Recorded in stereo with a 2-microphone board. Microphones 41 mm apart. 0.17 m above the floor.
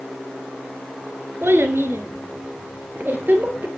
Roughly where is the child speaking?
Right.